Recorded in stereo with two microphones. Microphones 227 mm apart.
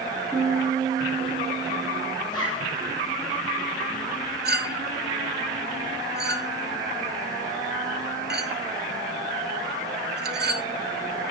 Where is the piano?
10° right (ahead or behind), 2 m.